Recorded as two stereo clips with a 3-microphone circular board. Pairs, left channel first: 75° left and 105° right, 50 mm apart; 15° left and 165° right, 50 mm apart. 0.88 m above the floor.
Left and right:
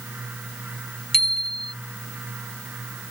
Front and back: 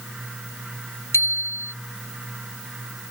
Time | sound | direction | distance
1.1 | a bicycle bell | 10° right | ?